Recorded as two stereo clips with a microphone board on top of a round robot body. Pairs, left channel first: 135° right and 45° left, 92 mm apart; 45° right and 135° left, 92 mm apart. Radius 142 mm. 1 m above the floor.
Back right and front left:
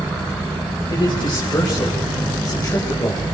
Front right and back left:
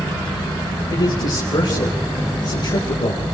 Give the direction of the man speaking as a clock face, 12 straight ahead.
3 o'clock.